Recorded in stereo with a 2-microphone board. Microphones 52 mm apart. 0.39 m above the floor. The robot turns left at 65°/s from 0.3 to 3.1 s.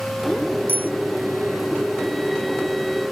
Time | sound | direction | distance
0.7 | a bicycle bell | 40° right (ahead or behind) | ?